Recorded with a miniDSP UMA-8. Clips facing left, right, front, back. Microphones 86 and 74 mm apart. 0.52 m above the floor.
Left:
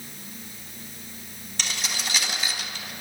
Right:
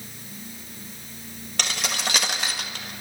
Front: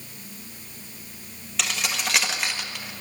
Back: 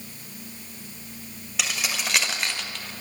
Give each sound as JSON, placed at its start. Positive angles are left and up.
{"t": 1.6, "sound": "keys jangling", "azimuth_deg": -95, "distance_m": 1.9}